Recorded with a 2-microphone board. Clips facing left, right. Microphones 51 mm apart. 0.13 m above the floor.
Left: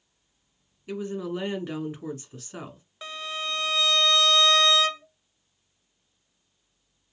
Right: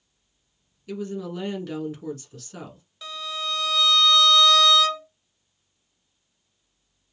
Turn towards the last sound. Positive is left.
turn(degrees=35)  # may be behind; listen again after turning